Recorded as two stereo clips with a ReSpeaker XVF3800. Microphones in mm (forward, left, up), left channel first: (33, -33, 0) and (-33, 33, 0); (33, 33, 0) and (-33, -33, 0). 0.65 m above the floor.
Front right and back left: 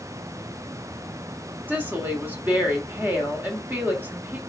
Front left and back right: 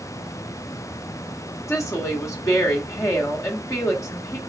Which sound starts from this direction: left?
A woman speaking, at 1.7 s.